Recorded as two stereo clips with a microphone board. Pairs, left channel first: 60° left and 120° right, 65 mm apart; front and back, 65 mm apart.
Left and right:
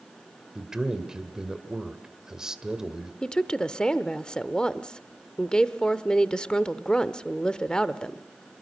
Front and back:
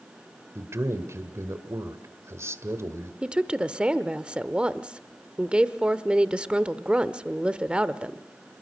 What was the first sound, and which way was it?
A man speaking, 165° left.